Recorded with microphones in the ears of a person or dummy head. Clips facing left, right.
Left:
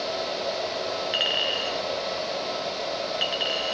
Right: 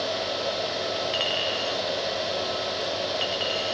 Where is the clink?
10° left (ahead or behind), 0.9 m.